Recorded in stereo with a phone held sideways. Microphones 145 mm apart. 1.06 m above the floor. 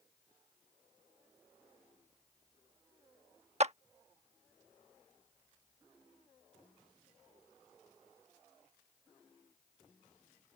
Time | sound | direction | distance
3.6 | a clap | 50° right (ahead or behind) | ?